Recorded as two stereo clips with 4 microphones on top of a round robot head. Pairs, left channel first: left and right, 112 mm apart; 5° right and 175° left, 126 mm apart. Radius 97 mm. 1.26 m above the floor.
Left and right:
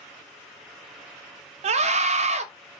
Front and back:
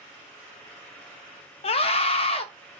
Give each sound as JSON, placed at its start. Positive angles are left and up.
{"t": 1.6, "sound": "a scream", "azimuth_deg": -55, "distance_m": 0.5}